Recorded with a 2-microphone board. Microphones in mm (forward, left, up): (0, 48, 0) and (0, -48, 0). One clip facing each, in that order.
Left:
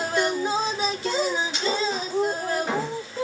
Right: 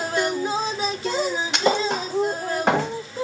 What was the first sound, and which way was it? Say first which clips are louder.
A thud: right 4 dB; 65° right (ahead or behind).